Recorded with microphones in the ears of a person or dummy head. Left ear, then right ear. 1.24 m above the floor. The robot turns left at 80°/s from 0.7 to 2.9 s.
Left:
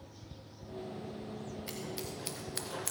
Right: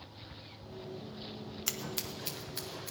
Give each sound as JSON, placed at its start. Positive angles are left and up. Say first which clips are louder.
{"t": 1.7, "sound": "scissors", "louder": "right 5 dB", "side_deg": -55, "distance_m": 0.8}